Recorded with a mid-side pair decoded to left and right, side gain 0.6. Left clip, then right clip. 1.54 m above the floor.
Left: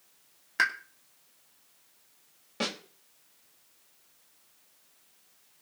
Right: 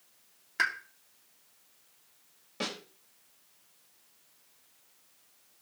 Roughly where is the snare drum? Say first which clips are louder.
Left 3 dB; ahead.